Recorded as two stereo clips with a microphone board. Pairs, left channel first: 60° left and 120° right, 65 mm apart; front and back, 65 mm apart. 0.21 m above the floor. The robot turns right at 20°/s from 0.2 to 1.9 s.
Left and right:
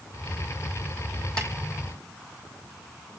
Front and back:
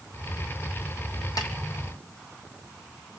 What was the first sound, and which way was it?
A snare drum, 15° right.